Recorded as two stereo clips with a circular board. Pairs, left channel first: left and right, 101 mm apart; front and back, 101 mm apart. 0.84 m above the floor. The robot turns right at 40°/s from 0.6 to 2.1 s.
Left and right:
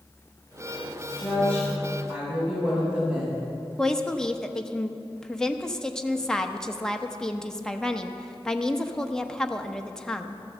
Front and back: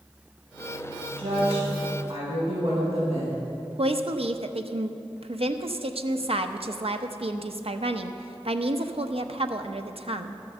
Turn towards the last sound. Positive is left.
turn(degrees=175)